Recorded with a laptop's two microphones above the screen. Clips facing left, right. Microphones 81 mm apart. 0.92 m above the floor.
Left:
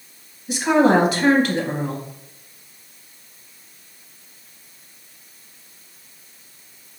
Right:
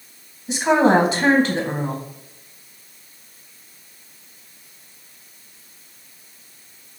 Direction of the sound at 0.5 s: 30° right (ahead or behind).